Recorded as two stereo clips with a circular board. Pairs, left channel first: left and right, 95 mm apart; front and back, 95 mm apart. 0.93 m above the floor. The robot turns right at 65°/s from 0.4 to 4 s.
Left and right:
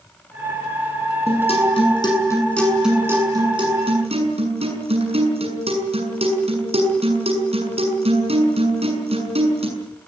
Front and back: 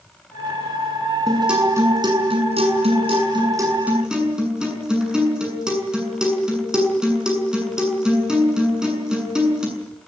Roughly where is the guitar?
Left.